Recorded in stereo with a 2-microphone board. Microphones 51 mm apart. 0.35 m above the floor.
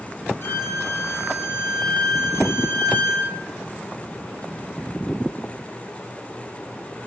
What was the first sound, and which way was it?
A violin, 60° left (ahead or behind).